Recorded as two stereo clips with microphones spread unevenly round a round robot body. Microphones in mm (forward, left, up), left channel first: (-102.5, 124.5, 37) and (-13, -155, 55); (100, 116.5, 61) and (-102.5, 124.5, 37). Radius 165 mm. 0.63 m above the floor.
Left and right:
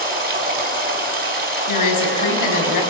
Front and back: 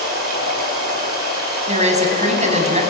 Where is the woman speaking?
120° left, 6.5 m.